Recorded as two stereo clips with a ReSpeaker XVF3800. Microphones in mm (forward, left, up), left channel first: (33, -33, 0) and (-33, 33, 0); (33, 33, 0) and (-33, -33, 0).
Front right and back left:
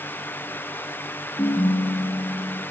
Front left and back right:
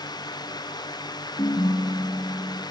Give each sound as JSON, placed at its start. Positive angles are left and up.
{"t": 1.4, "sound": "a ringtone", "azimuth_deg": -5, "distance_m": 5.0}